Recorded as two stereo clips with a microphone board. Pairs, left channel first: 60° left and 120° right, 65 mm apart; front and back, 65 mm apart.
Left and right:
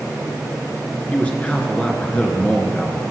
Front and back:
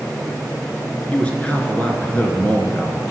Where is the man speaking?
30° left, 1.3 m.